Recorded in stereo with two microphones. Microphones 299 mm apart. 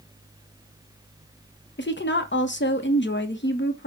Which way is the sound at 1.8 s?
35° left (ahead or behind).